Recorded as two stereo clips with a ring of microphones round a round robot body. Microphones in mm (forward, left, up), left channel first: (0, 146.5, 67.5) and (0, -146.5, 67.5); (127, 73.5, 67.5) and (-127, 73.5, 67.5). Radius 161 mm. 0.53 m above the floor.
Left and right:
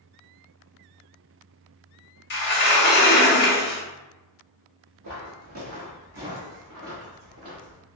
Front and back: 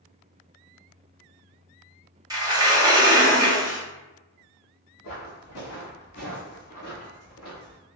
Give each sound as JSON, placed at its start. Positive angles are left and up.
{"t": 2.3, "sound": "a sliding door", "azimuth_deg": 115, "distance_m": 1.2}
{"t": 5.0, "sound": "footsteps", "azimuth_deg": -45, "distance_m": 1.0}